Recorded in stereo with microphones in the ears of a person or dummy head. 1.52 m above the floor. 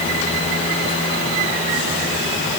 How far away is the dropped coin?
I don't hear a dropped coin.